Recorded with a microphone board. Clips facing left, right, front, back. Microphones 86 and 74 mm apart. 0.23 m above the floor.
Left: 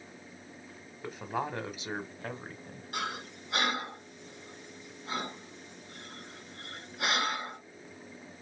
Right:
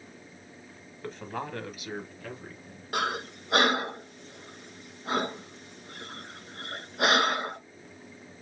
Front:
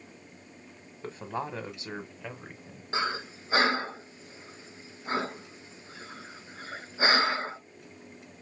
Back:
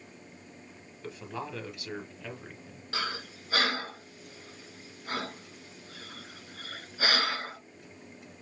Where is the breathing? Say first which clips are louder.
Right 7 dB, front 5 dB; 65° right, 0.5 m.